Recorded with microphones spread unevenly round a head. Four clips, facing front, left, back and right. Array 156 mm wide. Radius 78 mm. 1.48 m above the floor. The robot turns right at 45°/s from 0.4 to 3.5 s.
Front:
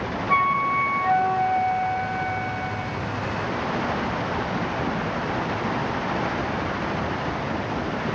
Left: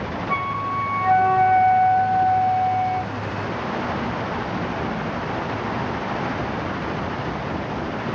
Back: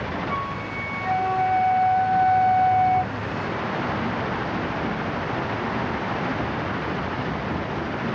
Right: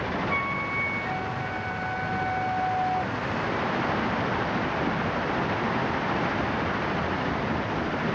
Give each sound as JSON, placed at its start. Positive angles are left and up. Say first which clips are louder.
{"t": 0.3, "sound": "a flute", "louder": "left 5 dB, front 8 dB", "azimuth_deg": 50, "distance_m": 0.6}